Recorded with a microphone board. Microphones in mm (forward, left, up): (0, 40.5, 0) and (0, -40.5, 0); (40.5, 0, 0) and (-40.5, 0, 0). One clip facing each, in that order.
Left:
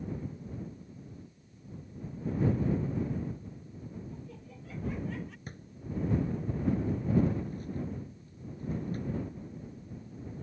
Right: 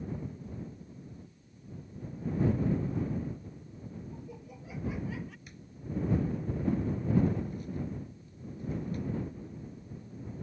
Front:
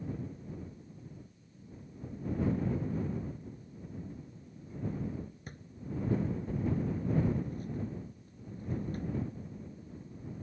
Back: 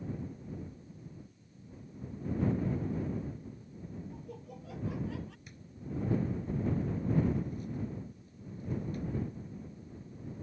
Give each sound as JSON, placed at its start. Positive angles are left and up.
{"t": 4.1, "sound": "laughter", "azimuth_deg": -160}
{"t": 5.5, "sound": "a drawer", "azimuth_deg": 45}